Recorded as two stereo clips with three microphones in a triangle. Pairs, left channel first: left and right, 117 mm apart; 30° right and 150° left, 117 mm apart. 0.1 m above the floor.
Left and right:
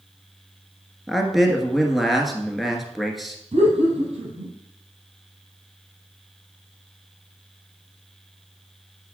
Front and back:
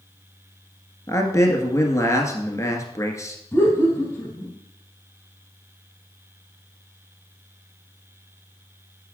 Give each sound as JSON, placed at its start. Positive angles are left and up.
{"t": 1.1, "sound": "a man speaking", "azimuth_deg": 0, "distance_m": 1.4}
{"t": 3.5, "sound": "laughter", "azimuth_deg": -105, "distance_m": 3.5}